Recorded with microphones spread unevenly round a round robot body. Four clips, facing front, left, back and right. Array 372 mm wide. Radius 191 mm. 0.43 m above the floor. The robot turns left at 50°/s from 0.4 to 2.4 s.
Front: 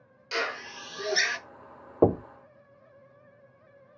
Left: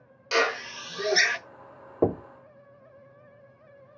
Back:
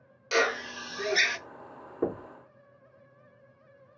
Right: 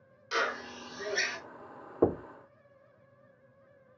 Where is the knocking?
15° left, 0.5 m; by 2.2 s 5° left, 0.5 m.